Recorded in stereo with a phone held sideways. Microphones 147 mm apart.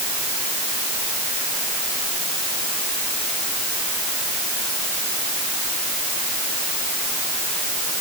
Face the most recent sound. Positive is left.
No sound to turn to.